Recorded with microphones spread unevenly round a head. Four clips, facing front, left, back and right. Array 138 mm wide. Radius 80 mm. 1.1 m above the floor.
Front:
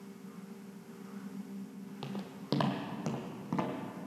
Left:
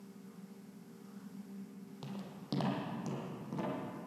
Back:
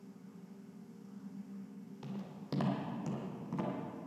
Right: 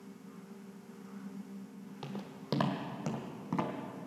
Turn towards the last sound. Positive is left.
turn(degrees=-40)